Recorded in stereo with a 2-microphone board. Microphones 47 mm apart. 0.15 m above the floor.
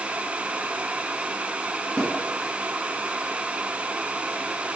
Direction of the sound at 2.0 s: 10° left (ahead or behind).